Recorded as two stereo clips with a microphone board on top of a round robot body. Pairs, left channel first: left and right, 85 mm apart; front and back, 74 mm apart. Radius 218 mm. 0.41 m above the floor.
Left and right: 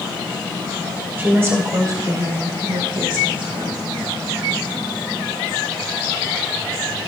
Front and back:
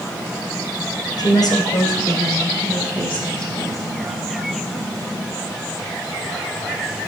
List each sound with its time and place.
1.2 s a woman speaking: 25° right, 3.5 m; by 3.8 s 85° right, 4.5 m